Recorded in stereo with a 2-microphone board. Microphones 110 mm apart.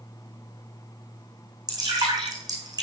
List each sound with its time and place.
1.7 s dripping: 35° right (ahead or behind), 5 m